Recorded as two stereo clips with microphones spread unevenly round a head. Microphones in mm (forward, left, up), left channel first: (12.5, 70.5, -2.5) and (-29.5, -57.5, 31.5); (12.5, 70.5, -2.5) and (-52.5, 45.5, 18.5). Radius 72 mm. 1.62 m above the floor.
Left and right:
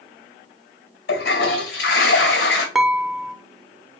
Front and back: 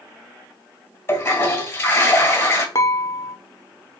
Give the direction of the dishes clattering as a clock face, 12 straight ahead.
1 o'clock.